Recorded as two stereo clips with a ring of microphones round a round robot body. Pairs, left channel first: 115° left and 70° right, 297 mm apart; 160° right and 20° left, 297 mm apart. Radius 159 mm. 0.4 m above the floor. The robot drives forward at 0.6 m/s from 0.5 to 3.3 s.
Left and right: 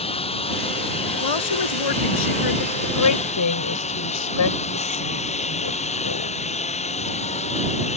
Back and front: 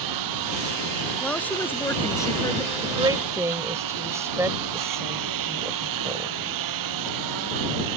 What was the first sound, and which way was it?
A lawn mower, 40° left.